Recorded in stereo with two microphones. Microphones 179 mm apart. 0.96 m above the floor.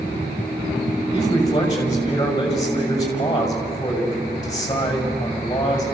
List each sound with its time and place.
1.1 s a man speaking: 25° left (ahead or behind), 6 m